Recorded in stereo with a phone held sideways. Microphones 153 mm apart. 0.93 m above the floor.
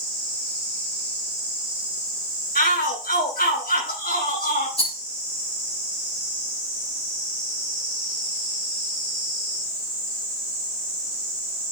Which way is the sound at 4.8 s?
40° left (ahead or behind).